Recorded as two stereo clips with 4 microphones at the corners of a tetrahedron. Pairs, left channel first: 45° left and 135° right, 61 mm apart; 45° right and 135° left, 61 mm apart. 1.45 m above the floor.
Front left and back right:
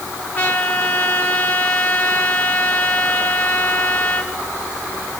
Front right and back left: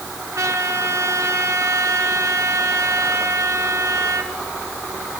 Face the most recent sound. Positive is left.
turn(degrees=110)